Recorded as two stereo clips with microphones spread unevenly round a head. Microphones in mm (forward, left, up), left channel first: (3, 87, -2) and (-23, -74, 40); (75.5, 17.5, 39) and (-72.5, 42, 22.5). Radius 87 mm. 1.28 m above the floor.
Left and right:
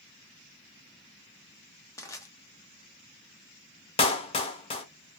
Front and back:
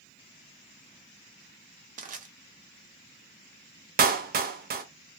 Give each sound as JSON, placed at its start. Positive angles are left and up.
{"t": 2.0, "sound": "crushing", "azimuth_deg": 145, "distance_m": 1.0}
{"t": 4.0, "sound": "a clap", "azimuth_deg": 140, "distance_m": 0.9}